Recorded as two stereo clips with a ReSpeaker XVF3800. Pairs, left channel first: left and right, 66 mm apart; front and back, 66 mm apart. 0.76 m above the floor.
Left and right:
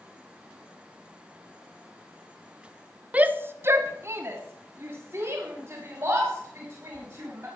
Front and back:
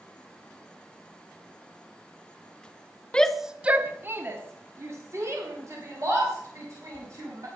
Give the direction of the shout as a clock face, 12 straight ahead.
2 o'clock.